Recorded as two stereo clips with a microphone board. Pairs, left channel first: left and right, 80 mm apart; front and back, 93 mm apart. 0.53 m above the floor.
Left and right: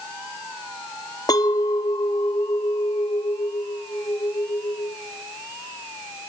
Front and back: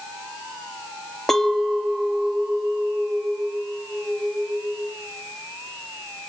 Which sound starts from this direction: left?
A clink, at 1.3 s.